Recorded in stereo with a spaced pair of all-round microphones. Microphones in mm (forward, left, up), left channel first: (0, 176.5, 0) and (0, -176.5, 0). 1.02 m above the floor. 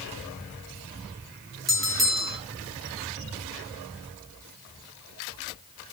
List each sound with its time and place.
1.7 s a bell: centre (ahead or behind), 0.7 m